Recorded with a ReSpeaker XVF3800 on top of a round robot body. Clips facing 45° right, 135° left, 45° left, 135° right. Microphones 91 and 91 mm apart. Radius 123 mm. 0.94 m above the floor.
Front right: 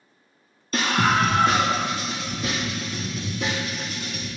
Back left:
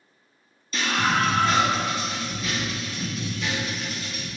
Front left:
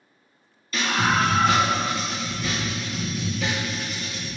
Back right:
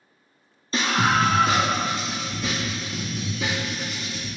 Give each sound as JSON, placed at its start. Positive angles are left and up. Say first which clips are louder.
{"t": 0.7, "sound": "a scream", "louder": "front right 3 dB, back right 1 dB", "azimuth_deg": -80, "distance_m": 0.7}